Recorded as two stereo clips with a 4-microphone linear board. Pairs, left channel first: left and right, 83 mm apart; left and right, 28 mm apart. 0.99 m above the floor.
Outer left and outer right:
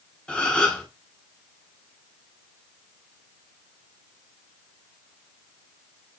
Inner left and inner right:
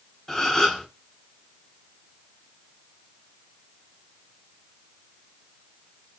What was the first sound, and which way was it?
A gasp, 10° left (ahead or behind).